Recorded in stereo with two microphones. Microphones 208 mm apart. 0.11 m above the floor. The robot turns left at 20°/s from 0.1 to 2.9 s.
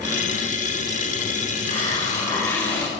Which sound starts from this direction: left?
A hiss, at 1.6 s.